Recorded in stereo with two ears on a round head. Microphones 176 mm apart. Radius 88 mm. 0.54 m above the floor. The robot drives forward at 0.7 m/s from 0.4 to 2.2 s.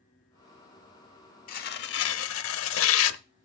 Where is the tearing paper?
45° left (ahead or behind), 1.0 m; by 3.2 s 75° left (ahead or behind), 0.8 m.